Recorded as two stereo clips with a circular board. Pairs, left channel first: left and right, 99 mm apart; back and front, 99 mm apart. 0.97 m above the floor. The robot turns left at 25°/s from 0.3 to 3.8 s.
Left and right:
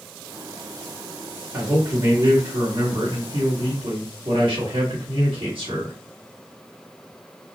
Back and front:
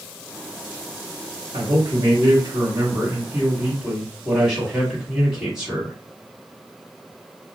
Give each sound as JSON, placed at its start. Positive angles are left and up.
{"t": 1.5, "sound": "a man speaking", "azimuth_deg": -25, "distance_m": 1.8}